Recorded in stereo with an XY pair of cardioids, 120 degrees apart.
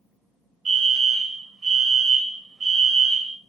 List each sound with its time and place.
0.7 s a fire alarm: 40° right, 2.5 m